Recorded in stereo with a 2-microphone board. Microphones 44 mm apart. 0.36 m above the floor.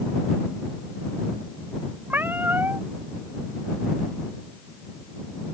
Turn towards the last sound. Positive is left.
turn(degrees=-50)  # may be behind; listen again after turning